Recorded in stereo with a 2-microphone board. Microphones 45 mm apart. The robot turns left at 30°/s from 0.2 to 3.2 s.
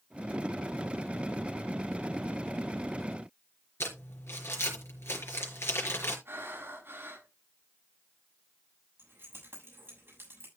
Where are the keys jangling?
60° right (ahead or behind), 7 m.